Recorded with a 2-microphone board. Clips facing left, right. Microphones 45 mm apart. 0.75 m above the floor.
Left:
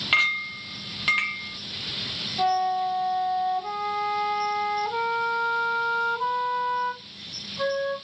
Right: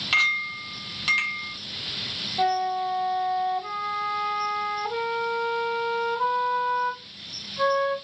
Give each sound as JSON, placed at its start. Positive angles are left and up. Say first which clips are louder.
{"t": 0.1, "sound": "a clink", "louder": "even", "side_deg": 15, "distance_m": 0.7}
{"t": 2.4, "sound": "a flute", "louder": "left 1 dB", "side_deg": -20, "distance_m": 1.4}